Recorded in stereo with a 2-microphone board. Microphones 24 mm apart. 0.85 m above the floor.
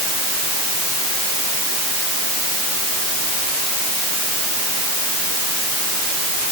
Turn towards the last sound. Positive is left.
No sound to turn to.